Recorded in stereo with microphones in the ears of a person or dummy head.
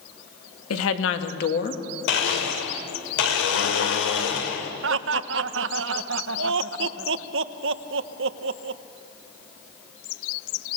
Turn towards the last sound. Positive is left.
turn(degrees=-70)  # may be behind; listen again after turning